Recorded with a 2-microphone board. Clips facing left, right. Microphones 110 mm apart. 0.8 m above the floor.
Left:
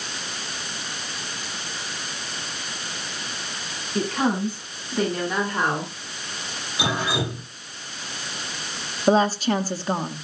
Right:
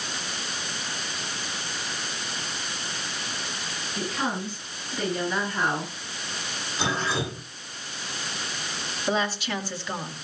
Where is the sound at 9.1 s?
40° left (ahead or behind), 1.9 m.